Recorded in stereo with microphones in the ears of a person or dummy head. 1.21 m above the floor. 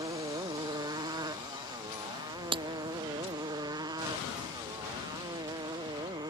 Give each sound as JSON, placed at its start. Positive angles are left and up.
{"t": 0.0, "sound": "a motorcycle", "side_deg": -20}
{"t": 2.5, "sound": "breaking glass", "side_deg": -30}